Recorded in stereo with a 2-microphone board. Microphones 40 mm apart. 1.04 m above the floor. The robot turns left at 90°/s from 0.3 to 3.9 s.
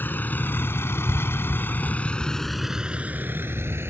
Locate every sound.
0.0 s a vehicle: 50° left (ahead or behind); by 3.9 s 80° right